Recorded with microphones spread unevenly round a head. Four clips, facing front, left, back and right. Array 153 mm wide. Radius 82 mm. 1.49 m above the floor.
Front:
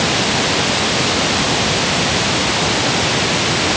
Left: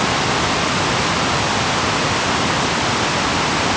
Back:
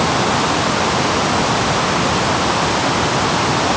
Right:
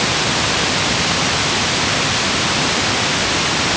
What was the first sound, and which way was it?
Only background noise.